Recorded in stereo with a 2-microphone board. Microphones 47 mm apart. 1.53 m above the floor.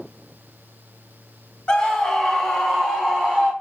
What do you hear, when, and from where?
1.7 s a scream: 20° left (ahead or behind), 1.0 m; by 3.5 s 20° right (ahead or behind), 1.6 m